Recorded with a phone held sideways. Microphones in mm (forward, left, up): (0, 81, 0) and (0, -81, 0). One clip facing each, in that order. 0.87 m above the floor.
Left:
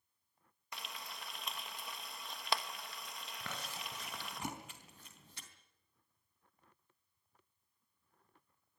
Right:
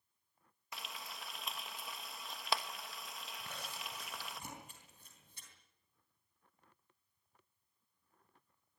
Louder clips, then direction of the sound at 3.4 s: Left 3 dB; 85° left.